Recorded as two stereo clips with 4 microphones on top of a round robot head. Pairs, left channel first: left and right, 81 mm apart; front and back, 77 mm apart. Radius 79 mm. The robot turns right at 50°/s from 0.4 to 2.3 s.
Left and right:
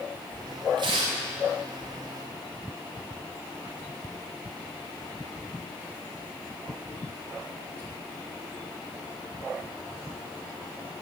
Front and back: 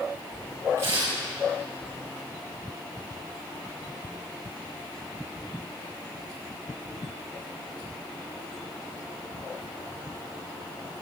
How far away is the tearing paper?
About 4 m.